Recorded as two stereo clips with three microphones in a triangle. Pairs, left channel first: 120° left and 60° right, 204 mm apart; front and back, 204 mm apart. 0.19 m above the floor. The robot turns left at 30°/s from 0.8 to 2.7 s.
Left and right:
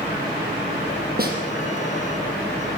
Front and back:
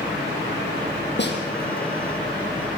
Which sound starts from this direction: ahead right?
A snare drum, at 1.2 s.